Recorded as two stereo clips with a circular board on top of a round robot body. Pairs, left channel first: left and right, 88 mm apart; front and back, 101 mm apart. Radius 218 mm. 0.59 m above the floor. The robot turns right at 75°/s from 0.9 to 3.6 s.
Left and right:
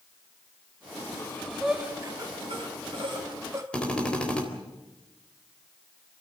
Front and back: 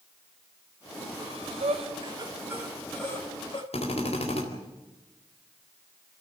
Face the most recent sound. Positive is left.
turn(degrees=10)